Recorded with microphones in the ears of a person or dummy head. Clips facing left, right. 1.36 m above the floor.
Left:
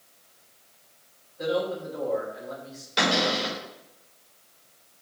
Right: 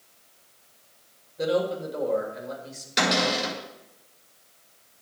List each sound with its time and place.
1.4 s a man speaking: 50° right (ahead or behind), 2.5 m
3.0 s a cupboard door: 30° right (ahead or behind), 5 m